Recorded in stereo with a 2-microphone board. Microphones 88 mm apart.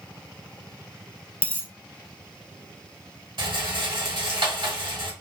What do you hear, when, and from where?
1.4 s a dropped coin: 25° right (ahead or behind), 0.9 m
3.4 s a rattle: 75° right (ahead or behind), 1.2 m